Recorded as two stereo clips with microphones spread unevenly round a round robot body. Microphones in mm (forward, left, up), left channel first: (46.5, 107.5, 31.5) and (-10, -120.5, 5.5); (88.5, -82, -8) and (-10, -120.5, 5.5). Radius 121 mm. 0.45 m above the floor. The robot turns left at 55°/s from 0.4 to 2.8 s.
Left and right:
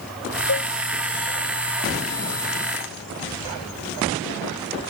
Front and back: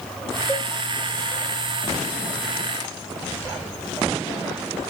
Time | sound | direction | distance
0.5 | a cowbell | 115° left | 2.5 m